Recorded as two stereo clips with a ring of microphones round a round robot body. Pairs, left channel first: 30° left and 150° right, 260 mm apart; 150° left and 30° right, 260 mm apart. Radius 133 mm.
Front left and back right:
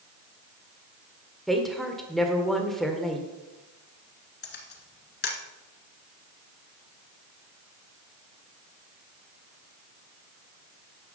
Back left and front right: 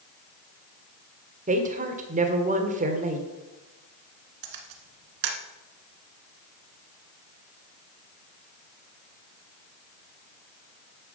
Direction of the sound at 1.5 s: 60° right.